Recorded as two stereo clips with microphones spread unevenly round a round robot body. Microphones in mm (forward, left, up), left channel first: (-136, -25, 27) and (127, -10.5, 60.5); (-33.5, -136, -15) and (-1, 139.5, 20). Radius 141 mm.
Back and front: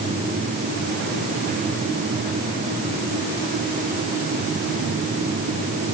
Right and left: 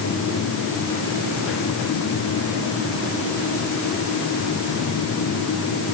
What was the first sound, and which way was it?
Only background noise.